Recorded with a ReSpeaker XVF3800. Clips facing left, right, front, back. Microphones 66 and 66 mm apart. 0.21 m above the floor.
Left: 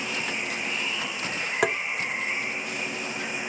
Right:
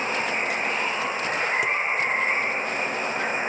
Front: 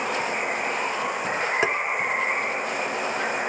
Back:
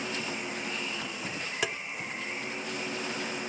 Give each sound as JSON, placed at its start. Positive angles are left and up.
{"t": 0.0, "sound": "running water", "azimuth_deg": -35}
{"t": 1.6, "sound": "tapping", "azimuth_deg": 60}